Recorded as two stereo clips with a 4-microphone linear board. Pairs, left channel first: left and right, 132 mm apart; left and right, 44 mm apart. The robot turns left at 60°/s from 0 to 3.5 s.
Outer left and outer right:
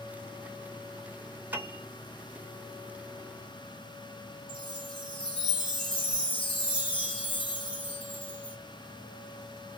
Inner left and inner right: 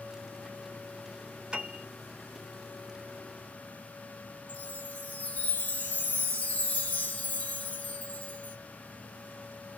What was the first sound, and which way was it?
A piano, 15° right (ahead or behind).